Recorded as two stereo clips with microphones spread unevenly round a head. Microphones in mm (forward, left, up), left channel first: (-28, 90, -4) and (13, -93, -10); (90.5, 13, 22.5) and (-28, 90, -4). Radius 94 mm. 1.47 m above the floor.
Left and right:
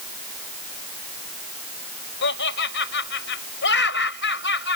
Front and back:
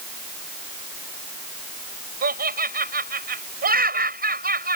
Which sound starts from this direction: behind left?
Laughter, at 2.2 s.